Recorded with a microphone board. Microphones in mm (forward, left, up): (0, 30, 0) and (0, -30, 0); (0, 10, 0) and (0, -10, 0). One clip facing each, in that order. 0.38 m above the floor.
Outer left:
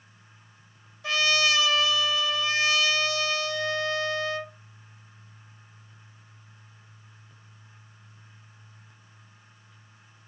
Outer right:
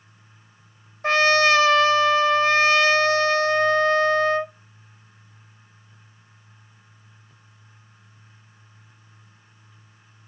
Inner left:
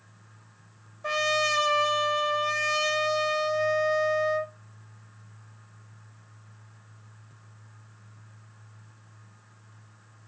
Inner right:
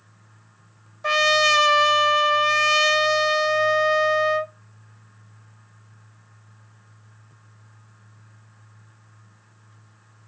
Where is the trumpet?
45° right (ahead or behind), 0.6 m.